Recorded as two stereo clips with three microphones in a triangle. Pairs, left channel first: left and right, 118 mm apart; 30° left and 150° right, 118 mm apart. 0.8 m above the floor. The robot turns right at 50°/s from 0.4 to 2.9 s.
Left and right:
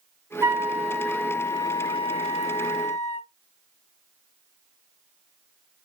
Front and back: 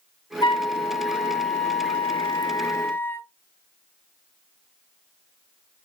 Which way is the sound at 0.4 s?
25° right.